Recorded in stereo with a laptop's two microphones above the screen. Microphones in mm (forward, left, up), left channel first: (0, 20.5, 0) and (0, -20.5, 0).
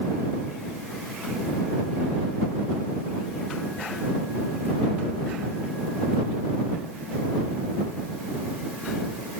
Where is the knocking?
I don't hear knocking.